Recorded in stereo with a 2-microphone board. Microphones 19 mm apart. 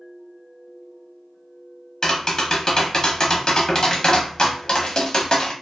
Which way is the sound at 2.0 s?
40° left (ahead or behind).